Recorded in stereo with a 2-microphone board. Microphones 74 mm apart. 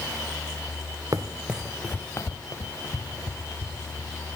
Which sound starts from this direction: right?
Running footsteps, at 1.1 s.